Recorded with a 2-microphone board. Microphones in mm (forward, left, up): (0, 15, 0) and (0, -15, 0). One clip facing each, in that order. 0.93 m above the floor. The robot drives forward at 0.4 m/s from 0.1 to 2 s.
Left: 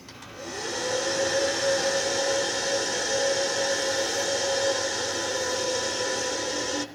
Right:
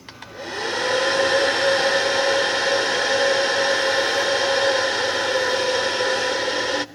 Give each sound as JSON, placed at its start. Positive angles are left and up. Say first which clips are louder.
{"t": 0.1, "sound": "a hair dryer", "louder": "right 6 dB", "side_deg": -40, "distance_m": 0.9}